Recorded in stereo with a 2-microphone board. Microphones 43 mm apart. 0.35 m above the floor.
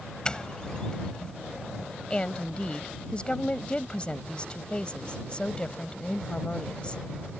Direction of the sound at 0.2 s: 20° left (ahead or behind).